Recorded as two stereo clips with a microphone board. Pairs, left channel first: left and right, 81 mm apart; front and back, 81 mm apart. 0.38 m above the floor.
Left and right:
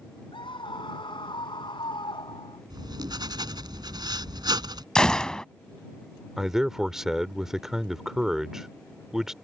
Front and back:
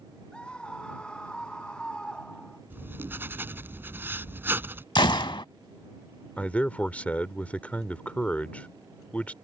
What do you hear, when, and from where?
0.3 s a scream: 80° left
2.7 s writing: 115° right
5.0 s a gunshot: 10° left
6.4 s a man speaking: 20° right